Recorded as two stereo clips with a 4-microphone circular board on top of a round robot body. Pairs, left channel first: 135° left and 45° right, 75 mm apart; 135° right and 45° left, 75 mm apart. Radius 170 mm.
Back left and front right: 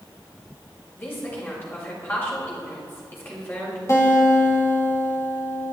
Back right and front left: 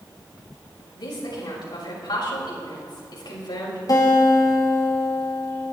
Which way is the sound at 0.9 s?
160° right.